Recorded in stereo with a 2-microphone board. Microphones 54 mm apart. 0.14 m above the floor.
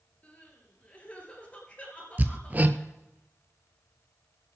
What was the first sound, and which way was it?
Crying, 25° left (ahead or behind).